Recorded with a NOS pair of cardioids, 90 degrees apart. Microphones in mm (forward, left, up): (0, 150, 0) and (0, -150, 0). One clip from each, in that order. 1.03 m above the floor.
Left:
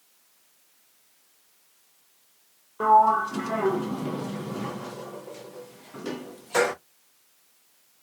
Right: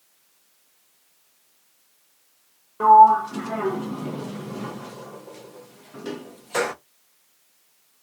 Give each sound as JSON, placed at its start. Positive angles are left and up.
{"t": 2.8, "sound": "a sliding door", "azimuth_deg": 0, "distance_m": 0.5}